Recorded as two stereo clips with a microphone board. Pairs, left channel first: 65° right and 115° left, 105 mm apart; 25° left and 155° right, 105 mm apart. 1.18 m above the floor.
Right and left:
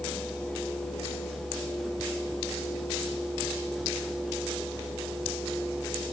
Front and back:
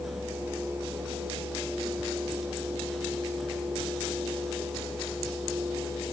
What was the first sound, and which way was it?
Only background noise.